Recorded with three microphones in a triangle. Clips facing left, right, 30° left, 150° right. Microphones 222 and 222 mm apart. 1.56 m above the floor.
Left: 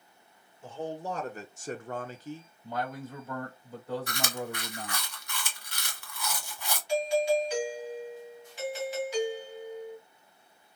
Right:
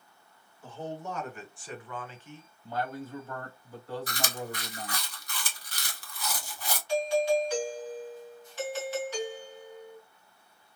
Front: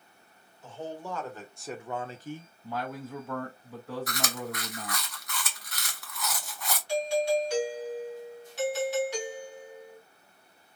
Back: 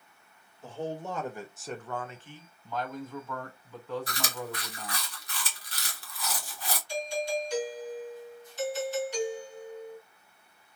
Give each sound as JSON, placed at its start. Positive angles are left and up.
{"t": 0.6, "sound": "a man speaking", "azimuth_deg": 155, "distance_m": 1.4}
{"t": 2.6, "sound": "a man speaking", "azimuth_deg": 15, "distance_m": 2.5}
{"t": 4.1, "sound": "chewing", "azimuth_deg": -110, "distance_m": 1.3}
{"t": 6.9, "sound": "a doorbell", "azimuth_deg": 15, "distance_m": 2.0}